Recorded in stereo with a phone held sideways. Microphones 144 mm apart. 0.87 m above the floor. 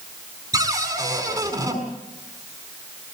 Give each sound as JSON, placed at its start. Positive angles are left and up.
{"t": 0.5, "sound": "a cupboard door", "side_deg": -20, "distance_m": 7.0}